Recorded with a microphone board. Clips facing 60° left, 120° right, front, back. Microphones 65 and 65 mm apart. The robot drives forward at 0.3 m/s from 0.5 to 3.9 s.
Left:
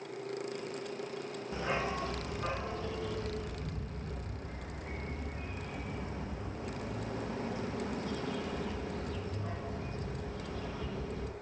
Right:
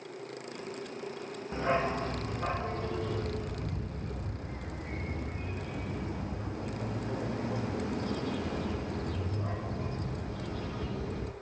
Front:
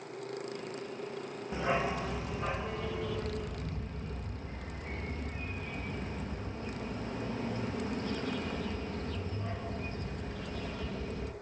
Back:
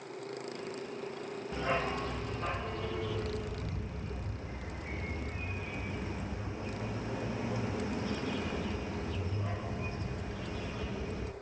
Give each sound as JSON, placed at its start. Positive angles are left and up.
{"t": 1.5, "sound": "a dog barking", "azimuth_deg": -70, "distance_m": 1.5}